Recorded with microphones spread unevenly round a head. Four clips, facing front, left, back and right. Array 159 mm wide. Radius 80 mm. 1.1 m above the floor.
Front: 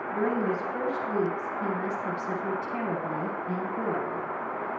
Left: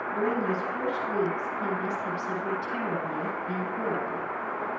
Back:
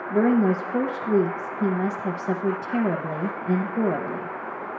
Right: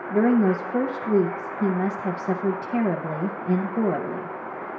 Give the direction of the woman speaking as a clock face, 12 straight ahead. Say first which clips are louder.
Right 9 dB, back 8 dB; 4 o'clock.